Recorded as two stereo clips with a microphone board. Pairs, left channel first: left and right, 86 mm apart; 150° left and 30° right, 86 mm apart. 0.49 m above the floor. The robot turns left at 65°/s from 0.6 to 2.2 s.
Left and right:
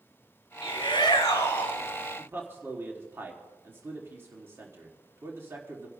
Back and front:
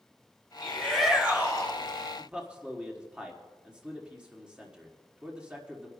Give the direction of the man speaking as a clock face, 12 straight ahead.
3 o'clock.